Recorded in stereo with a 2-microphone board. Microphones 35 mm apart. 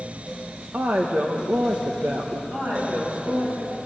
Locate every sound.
0.7 s a woman speaking: 70° right (ahead or behind), 1.4 m
2.5 s a woman speaking: 55° right (ahead or behind), 9.5 m